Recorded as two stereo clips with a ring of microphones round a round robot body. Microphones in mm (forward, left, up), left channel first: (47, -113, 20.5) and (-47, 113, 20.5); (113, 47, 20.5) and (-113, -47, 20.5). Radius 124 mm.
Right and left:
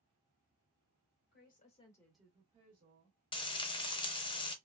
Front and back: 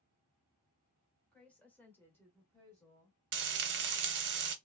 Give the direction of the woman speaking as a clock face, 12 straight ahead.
2 o'clock.